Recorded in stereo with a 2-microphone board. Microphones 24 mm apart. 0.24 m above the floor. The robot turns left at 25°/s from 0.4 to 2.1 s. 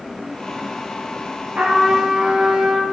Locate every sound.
1.6 s a trumpet: 75° right (ahead or behind), 6 m